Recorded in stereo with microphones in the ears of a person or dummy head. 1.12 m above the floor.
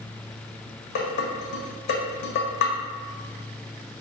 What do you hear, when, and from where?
0.9 s dishes clattering: 50° left (ahead or behind), 1.0 m